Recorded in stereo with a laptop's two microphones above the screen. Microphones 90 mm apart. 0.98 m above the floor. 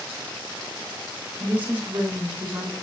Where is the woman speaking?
20° right (ahead or behind), 8.5 m.